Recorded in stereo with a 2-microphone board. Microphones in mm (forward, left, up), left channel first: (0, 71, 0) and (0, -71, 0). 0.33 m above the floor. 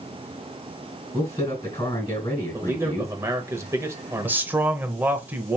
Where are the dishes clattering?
I don't hear dishes clattering.